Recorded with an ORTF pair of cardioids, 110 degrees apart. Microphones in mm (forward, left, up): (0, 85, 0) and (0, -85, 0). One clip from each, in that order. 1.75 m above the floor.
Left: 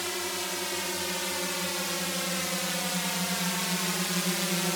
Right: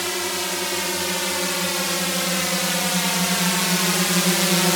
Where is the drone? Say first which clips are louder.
Right 7 dB; 40° right; by 4.8 s 55° right.